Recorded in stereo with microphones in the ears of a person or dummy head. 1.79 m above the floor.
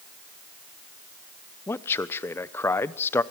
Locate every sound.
1.7 s a man speaking: 10° left (ahead or behind), 1.0 m